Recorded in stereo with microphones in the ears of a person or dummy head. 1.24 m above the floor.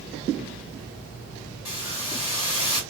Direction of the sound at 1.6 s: 35° left (ahead or behind).